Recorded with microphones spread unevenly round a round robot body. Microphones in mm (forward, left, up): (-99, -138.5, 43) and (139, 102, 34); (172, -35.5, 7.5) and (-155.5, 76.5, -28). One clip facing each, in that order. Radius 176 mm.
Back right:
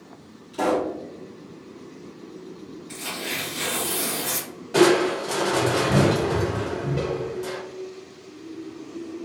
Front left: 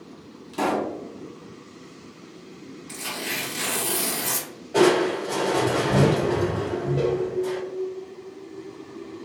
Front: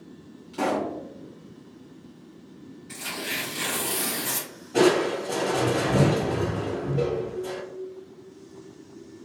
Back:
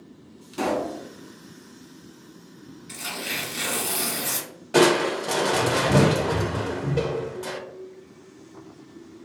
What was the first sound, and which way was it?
A pop, 100° left.